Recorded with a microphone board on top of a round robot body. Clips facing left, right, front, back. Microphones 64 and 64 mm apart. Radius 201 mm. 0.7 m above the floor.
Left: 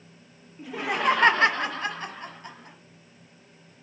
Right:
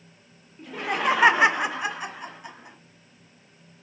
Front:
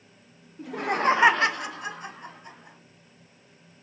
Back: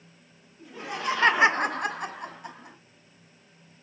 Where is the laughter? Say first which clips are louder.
Even, front 8 dB; 5° left, 1.2 m; by 2.8 s 170° right, 2 m.